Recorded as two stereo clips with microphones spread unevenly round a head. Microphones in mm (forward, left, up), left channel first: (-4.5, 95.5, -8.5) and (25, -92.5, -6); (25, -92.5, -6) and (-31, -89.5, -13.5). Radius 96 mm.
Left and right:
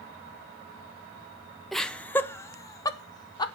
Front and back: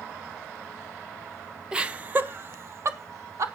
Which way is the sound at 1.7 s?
175° right.